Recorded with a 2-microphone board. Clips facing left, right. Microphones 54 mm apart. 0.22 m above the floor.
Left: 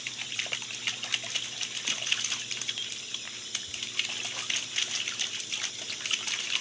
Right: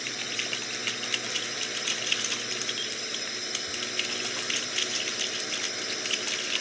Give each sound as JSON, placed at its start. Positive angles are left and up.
{"t": 0.0, "sound": "a drone", "side_deg": -65}